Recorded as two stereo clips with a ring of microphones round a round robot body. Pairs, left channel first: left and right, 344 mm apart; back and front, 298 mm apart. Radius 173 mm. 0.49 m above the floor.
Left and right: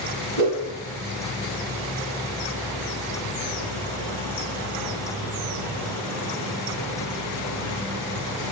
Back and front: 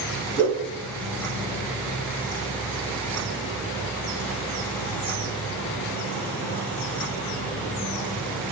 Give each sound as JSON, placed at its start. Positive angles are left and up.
{"t": 0.4, "sound": "a whoosh", "azimuth_deg": -95, "distance_m": 2.0}